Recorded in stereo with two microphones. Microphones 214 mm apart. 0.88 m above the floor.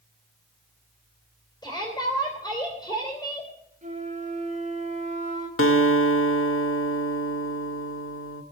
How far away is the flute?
About 2 m.